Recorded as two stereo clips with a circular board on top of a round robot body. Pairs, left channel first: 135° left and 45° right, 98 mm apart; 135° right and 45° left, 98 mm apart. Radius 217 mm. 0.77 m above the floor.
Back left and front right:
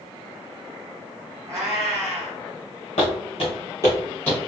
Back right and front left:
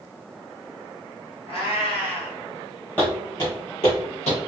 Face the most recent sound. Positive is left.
turn(degrees=-145)